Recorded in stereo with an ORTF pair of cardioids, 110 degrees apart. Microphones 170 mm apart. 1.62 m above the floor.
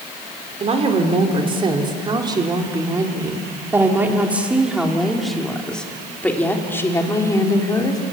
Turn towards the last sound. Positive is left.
turn(degrees=25)